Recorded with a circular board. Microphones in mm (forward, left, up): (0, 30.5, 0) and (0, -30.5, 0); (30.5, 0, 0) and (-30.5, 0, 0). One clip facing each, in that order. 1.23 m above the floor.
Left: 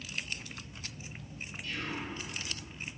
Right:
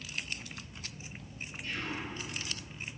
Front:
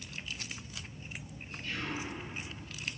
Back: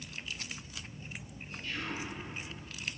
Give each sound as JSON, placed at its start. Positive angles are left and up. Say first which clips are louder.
{"t": 1.6, "sound": "whispering", "louder": "even, front 1 dB", "azimuth_deg": -40, "distance_m": 1.7}